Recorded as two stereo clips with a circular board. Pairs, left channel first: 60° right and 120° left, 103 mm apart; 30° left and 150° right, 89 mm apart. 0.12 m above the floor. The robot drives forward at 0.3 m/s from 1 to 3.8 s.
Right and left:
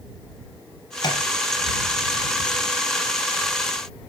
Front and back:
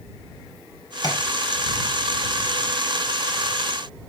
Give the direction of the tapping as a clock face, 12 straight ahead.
12 o'clock.